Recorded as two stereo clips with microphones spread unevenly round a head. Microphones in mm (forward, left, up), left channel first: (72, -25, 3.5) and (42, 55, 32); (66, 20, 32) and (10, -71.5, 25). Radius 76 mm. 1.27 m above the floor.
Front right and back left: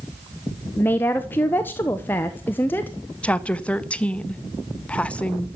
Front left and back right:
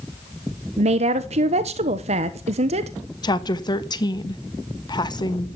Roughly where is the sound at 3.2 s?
Ahead.